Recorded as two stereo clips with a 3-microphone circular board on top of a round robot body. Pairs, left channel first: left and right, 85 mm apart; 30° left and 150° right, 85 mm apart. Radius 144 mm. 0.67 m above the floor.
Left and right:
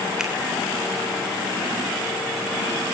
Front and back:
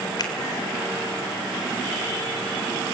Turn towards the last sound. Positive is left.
turn(degrees=-10)